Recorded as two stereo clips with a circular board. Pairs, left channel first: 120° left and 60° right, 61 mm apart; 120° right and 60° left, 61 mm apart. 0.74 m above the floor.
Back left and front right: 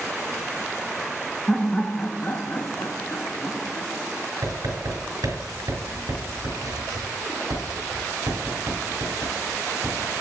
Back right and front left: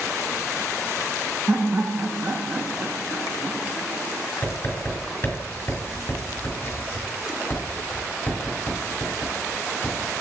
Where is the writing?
65° right, 4 m.